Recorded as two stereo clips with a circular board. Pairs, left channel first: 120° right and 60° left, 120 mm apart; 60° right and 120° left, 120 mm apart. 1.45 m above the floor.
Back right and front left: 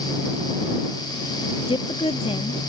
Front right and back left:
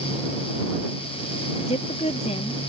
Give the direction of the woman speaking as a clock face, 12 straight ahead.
3 o'clock.